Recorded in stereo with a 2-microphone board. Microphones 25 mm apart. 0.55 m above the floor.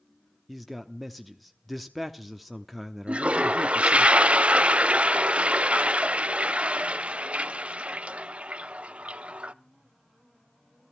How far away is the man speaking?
About 0.9 m.